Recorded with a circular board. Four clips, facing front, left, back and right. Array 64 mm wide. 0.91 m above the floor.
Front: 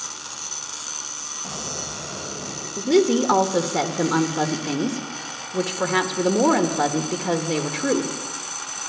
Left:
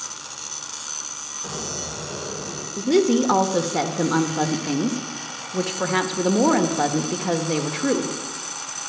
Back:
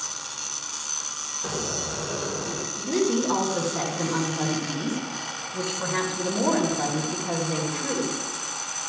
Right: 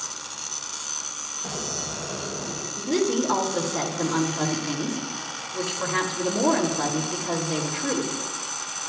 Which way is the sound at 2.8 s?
45° left.